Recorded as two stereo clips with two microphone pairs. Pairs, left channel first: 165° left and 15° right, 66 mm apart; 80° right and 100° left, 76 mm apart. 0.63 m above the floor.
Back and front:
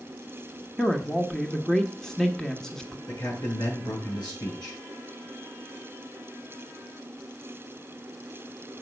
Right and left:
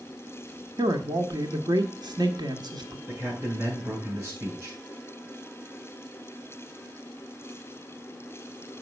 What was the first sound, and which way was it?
A man speaking, 85° left.